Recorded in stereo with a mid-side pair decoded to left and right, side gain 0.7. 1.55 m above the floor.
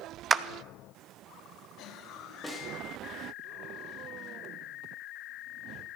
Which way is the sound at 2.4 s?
5° left.